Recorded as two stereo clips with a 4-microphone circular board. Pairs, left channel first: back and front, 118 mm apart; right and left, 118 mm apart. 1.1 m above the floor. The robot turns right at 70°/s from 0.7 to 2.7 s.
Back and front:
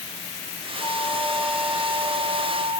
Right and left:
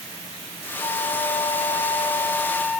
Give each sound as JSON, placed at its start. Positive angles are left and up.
{"t": 0.8, "sound": "a flute", "azimuth_deg": -135, "distance_m": 0.7}